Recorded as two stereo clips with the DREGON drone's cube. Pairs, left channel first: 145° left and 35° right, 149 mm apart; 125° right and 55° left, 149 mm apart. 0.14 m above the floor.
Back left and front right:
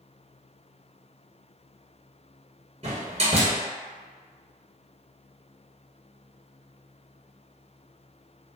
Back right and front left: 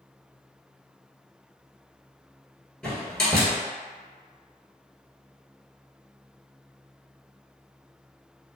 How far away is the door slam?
About 1.2 m.